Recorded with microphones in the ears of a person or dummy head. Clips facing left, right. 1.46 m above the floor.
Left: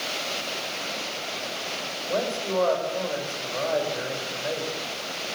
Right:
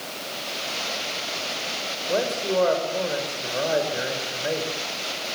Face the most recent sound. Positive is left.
turn(degrees=-25)  # may be behind; listen again after turning